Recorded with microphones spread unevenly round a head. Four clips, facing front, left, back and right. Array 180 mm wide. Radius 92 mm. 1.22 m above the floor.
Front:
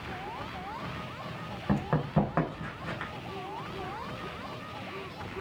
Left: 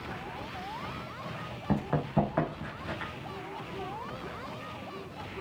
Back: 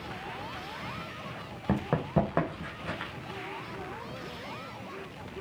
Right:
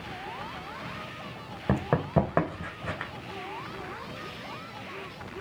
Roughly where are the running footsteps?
Right.